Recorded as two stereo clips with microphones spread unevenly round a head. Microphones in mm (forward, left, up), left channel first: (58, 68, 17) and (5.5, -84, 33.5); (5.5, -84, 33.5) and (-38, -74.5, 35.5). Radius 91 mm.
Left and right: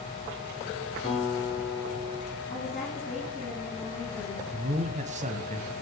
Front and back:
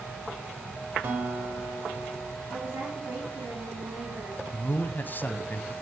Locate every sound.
1.0 s a guitar: 170° right, 1.2 m
2.5 s a woman speaking: 140° left, 3 m
4.5 s a man speaking: 65° right, 0.6 m